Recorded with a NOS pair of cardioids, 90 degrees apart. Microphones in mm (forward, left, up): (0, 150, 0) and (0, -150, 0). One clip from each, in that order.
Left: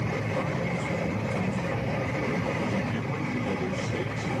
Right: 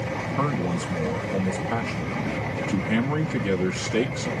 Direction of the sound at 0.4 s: 70° right.